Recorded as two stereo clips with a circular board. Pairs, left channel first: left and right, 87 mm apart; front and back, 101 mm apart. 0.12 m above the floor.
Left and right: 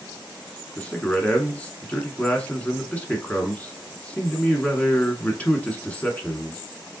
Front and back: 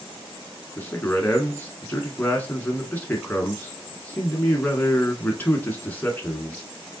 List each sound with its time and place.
0.8 s a man speaking: 40° left, 1.1 m